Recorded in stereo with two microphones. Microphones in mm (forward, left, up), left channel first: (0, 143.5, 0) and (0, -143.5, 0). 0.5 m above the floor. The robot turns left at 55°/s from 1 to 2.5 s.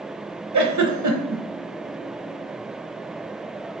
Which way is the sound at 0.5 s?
85° right.